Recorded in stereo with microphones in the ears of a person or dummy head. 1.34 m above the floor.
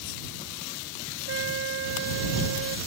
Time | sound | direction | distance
1.3 | a trumpet | 70° right (ahead or behind) | ?